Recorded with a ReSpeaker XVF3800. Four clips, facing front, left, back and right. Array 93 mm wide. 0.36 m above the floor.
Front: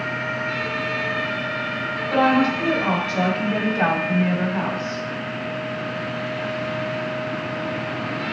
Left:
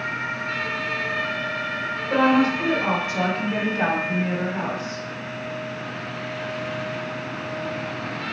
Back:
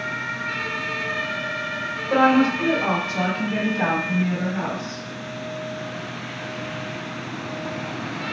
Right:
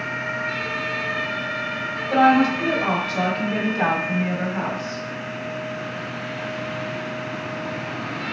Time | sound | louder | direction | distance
2.1 | a woman speaking | right 3 dB, back 1 dB | 150° left | 1.2 m